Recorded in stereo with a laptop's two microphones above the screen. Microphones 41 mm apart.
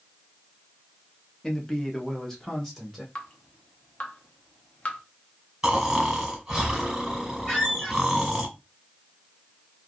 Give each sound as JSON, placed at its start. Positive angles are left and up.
{"t": 1.4, "sound": "a man speaking", "side_deg": 15, "distance_m": 0.8}
{"t": 3.1, "sound": "dripping", "side_deg": 30, "distance_m": 0.8}
{"t": 5.6, "sound": "snoring", "side_deg": -10, "distance_m": 1.3}
{"t": 7.5, "sound": "a squeak", "side_deg": 25, "distance_m": 1.0}